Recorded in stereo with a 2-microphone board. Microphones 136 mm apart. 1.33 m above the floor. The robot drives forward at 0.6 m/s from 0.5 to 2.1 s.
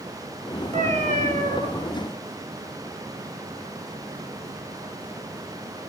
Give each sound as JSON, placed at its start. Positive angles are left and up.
{"t": 0.7, "sound": "a cat meowing", "side_deg": -55, "distance_m": 4.0}